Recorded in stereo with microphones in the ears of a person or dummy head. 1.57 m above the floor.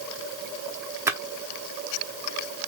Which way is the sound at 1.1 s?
10° right (ahead or behind).